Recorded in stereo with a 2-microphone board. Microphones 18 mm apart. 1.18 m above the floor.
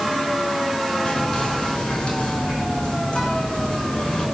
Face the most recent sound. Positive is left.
turn(degrees=60)  # may be behind; listen again after turning